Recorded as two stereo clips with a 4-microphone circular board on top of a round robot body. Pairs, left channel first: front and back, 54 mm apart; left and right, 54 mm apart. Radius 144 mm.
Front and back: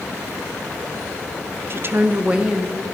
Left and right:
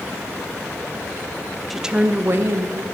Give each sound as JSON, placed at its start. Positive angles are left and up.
{"t": 1.7, "sound": "a woman speaking", "azimuth_deg": 180, "distance_m": 1.0}